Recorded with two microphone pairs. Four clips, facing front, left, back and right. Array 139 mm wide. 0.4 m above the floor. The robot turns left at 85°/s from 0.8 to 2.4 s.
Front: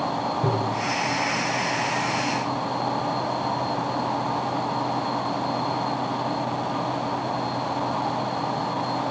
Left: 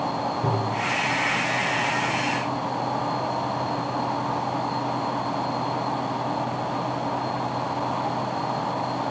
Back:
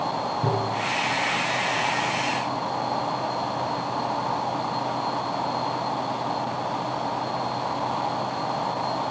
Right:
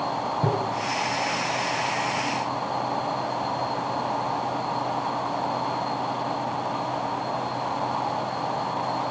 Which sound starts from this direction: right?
Tapping, at 0.4 s.